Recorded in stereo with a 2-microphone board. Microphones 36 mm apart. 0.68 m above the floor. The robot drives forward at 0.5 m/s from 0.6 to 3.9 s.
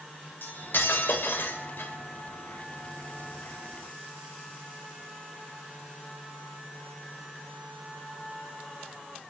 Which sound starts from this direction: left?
Cutlery clinking, at 0.4 s.